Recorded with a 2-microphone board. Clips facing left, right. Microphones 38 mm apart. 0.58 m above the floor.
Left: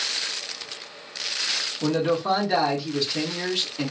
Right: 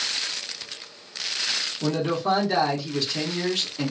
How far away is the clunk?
I don't hear a clunk.